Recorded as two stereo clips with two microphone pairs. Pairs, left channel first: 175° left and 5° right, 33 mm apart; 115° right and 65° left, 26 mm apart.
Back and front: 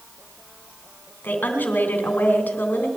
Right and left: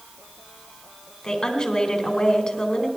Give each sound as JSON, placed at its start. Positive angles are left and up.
{"t": 1.2, "sound": "a woman speaking", "azimuth_deg": 180, "distance_m": 3.0}